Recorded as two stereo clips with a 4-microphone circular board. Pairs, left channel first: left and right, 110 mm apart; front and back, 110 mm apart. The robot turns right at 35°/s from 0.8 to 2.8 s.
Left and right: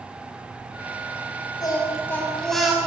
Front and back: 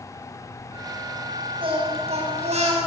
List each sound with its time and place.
1.6 s singing: 145° left, 7.5 m; by 2.8 s 175° right, 7.5 m